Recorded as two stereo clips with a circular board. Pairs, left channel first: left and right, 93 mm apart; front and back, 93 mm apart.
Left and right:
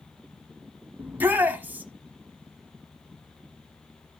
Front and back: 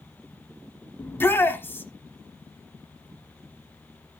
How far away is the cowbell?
No cowbell in this recording.